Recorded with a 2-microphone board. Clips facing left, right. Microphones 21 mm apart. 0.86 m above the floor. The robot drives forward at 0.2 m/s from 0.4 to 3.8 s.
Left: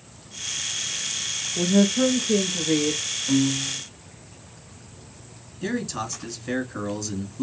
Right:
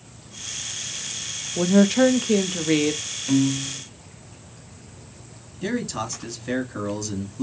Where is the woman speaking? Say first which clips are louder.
Right 3 dB; 60° right (ahead or behind), 0.6 m; by 3.0 s 45° right (ahead or behind), 0.8 m.